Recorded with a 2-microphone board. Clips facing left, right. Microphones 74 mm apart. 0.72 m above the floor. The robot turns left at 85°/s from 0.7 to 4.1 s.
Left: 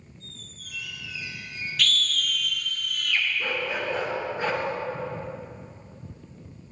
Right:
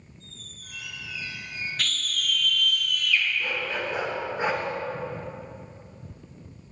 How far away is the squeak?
About 4.5 m.